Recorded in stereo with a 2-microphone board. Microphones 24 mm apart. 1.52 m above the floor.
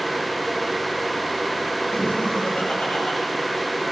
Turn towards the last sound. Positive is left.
turn(degrees=45)  # may be behind; listen again after turning